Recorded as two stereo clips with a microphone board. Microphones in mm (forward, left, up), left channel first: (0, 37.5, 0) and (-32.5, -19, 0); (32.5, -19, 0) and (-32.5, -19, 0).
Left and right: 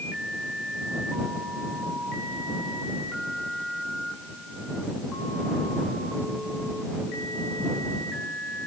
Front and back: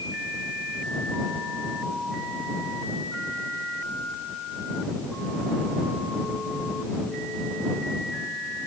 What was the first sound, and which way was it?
Only background noise.